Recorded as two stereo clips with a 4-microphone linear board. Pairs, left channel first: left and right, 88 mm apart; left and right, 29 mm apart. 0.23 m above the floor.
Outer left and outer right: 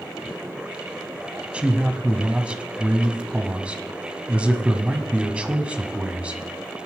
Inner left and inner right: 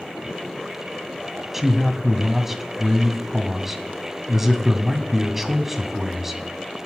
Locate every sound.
1.5 s a man speaking: 15° right (ahead or behind), 1.6 m